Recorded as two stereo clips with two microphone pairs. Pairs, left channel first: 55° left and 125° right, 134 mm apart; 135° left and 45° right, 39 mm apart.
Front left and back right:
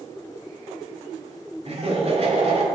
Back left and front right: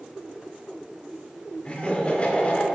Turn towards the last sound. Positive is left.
turn(degrees=-165)